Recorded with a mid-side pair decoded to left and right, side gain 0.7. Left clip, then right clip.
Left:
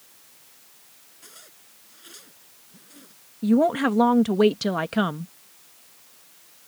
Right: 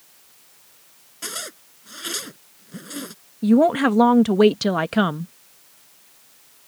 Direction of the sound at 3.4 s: 20° right.